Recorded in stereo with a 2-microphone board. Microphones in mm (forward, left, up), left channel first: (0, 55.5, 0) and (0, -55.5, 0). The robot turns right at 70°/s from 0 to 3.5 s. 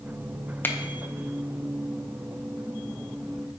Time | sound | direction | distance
0.6 | a finger snap | 20° left (ahead or behind) | 0.6 m